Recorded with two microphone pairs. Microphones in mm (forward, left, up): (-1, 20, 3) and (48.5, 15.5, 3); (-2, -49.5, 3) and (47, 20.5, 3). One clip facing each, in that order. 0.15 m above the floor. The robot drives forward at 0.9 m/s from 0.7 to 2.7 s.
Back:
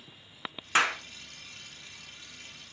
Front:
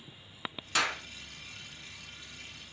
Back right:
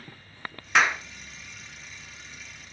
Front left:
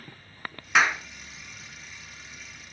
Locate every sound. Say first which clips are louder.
0.8 s a clap: back 5 dB, even; 140° left, 1.4 m; by 1.0 s 150° left, 1.5 m